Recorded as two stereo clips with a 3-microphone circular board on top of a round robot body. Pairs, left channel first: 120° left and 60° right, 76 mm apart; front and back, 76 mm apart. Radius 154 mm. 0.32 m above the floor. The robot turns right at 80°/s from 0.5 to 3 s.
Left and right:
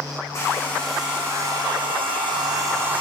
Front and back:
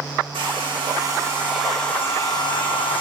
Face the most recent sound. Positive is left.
turn(degrees=15)